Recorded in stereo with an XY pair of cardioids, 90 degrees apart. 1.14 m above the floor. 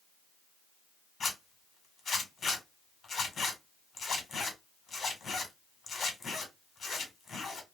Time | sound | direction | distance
1.2 | a zipper | 55° left | 2 m